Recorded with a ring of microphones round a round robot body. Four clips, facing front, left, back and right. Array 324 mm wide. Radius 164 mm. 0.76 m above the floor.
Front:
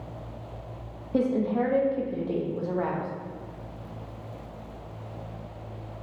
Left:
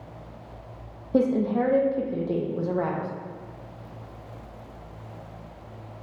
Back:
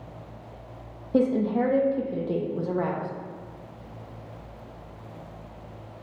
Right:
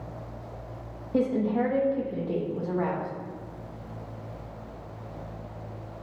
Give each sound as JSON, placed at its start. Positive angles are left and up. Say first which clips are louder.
{"t": 1.1, "sound": "a woman speaking", "louder": "left 3 dB, back 2 dB", "azimuth_deg": 130, "distance_m": 0.6}